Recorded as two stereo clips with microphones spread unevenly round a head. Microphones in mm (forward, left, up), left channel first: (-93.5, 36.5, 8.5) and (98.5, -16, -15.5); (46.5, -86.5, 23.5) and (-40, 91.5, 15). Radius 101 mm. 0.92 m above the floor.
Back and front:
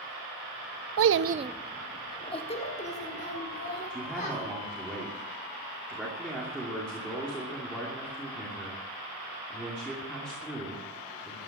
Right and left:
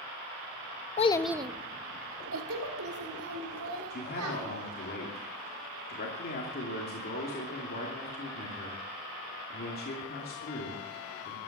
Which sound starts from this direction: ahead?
A child speaking, at 1.0 s.